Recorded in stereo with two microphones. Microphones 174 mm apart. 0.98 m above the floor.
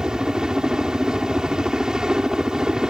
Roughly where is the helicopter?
Centre.